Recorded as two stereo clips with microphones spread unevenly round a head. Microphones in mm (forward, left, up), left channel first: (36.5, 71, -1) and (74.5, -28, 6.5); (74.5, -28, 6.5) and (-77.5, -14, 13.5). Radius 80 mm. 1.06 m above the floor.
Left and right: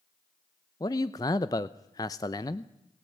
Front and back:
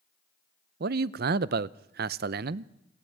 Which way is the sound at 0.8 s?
170° left.